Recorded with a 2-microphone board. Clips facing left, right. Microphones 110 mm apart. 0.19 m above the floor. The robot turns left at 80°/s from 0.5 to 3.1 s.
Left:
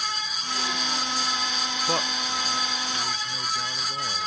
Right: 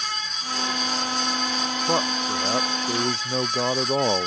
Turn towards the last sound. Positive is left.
turn(degrees=-110)